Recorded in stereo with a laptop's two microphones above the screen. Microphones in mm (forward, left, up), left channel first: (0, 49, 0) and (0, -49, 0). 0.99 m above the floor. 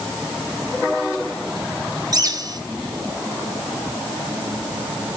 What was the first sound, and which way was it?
A bird, 40° right (ahead or behind).